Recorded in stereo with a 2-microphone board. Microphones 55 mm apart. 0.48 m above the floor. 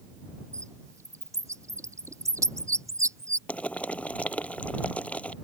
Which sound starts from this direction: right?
A bird, at 0.5 s.